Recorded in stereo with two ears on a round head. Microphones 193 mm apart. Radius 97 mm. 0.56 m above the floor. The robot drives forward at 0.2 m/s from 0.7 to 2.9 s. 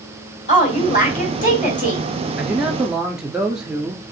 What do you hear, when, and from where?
0.5 s a woman speaking: 35° left (ahead or behind), 3.5 m; by 2.0 s 40° left (ahead or behind), 3 m
2.4 s a man speaking: 5° right (ahead or behind), 1.4 m